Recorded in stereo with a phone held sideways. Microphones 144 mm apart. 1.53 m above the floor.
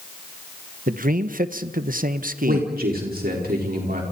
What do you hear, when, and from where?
0.9 s a man speaking: 65° right (ahead or behind), 1.3 m
2.5 s a man speaking: 80° right, 5 m